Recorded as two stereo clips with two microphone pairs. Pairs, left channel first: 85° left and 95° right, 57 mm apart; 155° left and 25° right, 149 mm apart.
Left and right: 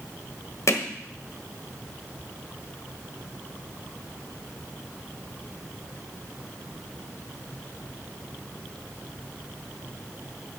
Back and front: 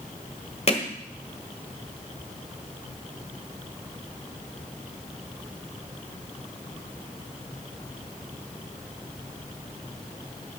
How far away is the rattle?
No rattle in this recording.